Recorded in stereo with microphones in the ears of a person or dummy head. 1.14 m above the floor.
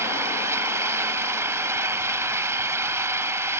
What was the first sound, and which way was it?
An engine running, 15° right (ahead or behind).